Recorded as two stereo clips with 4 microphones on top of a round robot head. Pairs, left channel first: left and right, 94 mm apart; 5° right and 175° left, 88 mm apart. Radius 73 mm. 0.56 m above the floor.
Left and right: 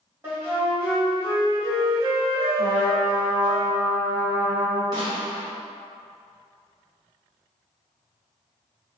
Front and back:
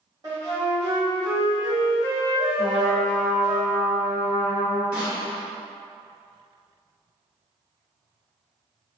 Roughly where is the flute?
Behind right.